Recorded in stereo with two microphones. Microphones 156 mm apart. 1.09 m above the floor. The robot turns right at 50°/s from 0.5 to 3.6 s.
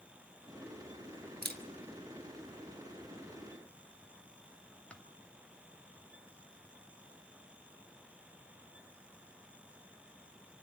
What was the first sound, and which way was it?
A camera shutter, 80° right.